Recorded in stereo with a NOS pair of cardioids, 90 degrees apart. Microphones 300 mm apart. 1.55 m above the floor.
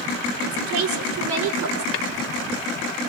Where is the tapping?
45° left, 2.5 m.